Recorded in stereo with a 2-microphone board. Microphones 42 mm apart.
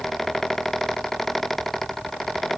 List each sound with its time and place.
Only background noise.